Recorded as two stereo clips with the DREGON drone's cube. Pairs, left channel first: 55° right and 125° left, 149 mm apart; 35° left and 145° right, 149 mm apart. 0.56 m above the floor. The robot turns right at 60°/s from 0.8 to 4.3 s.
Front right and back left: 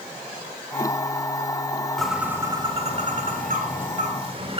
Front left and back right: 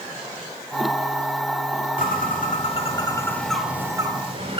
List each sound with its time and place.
2.0 s a bird: 30° left, 1.8 m; by 4.6 s 170° left, 1.8 m